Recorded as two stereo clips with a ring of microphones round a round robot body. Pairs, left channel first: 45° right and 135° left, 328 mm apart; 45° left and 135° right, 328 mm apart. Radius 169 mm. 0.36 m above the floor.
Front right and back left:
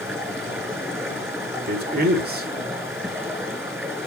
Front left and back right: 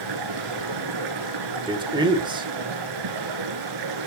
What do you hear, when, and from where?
0.0 s running water: 140° right, 3.5 m
1.7 s a man speaking: 160° left, 1.5 m